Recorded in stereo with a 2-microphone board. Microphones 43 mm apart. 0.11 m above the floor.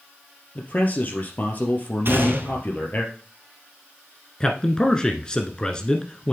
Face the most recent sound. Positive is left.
turn(degrees=20)  # may be behind; listen again after turning